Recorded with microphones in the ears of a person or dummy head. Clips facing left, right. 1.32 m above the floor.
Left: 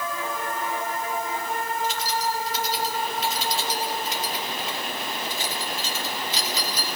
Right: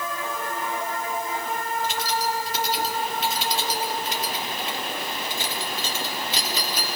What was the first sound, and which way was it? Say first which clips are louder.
Keys jangling: right 1 dB; 50° right (ahead or behind).